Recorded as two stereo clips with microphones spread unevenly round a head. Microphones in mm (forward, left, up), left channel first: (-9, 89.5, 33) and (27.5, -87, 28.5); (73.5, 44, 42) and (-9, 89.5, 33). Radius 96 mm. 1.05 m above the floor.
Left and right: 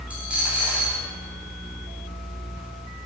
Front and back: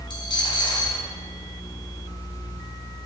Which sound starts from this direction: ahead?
A dropped coin, at 0.1 s.